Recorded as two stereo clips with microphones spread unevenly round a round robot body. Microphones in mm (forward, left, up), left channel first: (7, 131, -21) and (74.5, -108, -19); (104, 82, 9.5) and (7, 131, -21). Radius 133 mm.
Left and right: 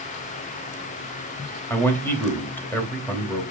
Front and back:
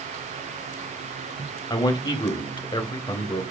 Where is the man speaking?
25° left, 3 m.